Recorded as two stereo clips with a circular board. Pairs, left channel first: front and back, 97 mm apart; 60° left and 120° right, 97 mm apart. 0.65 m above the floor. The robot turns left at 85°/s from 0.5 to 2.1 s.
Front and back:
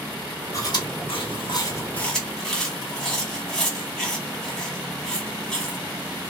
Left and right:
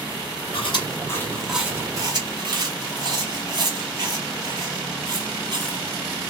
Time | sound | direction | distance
0.5 | chewing | 50° left | 1.0 m